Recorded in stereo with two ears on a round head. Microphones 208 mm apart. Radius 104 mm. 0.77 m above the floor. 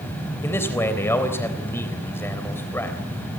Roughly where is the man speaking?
Centre.